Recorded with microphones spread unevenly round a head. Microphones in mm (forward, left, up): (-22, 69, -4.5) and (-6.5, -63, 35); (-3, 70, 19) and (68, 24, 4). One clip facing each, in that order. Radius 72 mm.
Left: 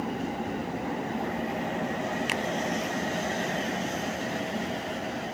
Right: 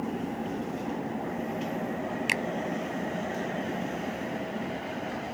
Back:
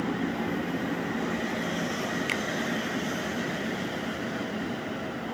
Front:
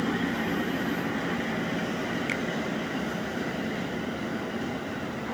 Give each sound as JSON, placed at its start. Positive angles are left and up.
{"t": 2.3, "sound": "a finger snap", "azimuth_deg": -160}